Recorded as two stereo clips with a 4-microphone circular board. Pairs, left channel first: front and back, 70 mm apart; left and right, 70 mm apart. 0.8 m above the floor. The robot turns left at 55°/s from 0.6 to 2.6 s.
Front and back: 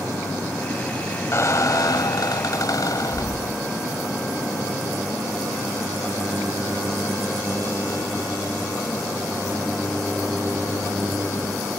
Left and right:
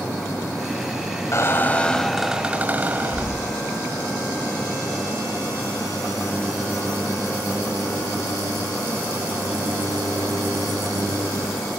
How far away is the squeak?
About 1.3 m.